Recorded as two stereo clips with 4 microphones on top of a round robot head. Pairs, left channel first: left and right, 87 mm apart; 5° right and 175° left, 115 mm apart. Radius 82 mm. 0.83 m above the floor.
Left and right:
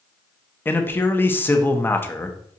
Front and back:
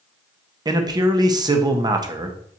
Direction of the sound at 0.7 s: 145° left.